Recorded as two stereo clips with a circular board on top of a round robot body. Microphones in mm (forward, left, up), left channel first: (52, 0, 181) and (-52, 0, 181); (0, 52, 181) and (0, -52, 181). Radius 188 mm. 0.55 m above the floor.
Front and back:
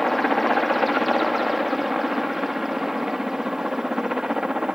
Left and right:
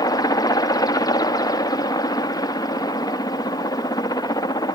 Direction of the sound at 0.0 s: 90° left.